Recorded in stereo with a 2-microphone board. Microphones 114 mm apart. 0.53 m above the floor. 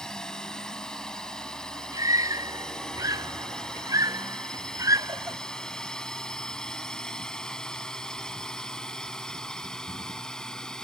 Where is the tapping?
I don't hear tapping.